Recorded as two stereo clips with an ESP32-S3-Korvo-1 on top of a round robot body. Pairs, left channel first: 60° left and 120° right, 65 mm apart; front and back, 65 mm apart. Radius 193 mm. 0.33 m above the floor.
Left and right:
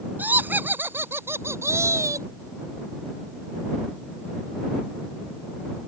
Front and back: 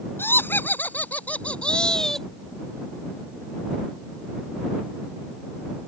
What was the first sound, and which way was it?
Laughter, 55° right.